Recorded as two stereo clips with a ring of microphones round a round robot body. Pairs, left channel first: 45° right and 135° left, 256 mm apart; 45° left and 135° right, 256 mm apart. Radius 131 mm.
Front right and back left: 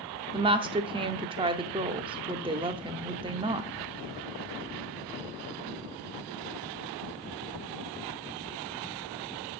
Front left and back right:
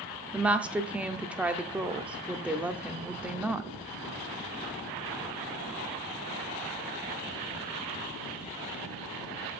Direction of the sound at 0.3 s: 150° left.